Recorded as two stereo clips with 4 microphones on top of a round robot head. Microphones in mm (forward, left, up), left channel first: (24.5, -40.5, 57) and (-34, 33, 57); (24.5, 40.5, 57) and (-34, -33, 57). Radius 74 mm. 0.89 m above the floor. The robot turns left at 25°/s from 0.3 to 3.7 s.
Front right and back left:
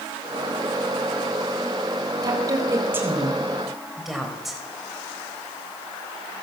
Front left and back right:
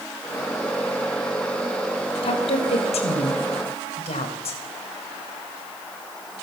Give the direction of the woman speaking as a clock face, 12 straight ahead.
9 o'clock.